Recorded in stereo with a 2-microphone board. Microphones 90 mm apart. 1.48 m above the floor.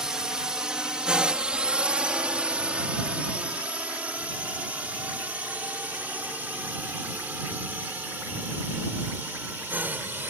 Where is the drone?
5° right (ahead or behind); by 10.3 s 20° right (ahead or behind).